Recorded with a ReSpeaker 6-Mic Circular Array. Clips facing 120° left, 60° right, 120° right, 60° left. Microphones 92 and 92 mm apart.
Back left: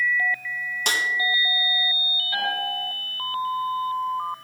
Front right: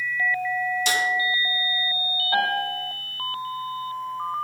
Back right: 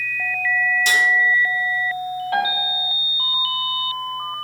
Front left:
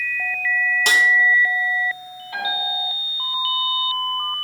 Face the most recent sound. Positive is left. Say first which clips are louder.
# front right 3 dB, back right 2 dB
turn(degrees=-110)